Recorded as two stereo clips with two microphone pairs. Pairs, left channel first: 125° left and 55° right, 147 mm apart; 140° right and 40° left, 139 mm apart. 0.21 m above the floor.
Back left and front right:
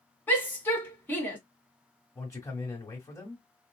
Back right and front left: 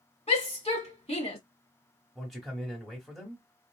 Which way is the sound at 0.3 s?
160° right.